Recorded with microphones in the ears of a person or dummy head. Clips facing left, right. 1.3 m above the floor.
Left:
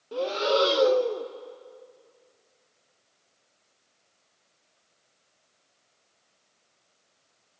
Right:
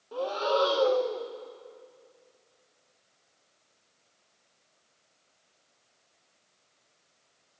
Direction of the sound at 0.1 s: 35° left (ahead or behind).